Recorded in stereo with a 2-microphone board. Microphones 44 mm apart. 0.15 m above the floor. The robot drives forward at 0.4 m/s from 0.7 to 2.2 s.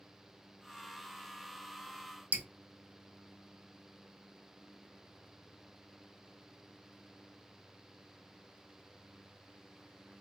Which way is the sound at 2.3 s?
35° right (ahead or behind).